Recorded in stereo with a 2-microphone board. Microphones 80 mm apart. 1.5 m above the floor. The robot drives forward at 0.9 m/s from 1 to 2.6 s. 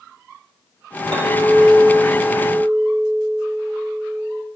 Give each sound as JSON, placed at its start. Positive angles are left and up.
{"t": 1.1, "sound": "a clink", "side_deg": -75, "distance_m": 3.0}